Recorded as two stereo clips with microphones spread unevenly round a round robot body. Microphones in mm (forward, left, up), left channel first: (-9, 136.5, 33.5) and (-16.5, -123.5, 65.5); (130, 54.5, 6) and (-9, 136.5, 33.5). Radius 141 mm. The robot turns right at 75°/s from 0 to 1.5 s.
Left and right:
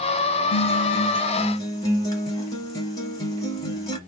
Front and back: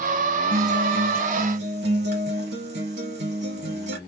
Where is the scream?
I don't hear a scream.